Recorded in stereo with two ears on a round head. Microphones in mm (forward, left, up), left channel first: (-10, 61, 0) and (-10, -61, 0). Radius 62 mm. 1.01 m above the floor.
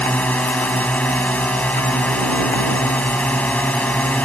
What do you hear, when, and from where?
0.0 s a drone: 10° left (ahead or behind)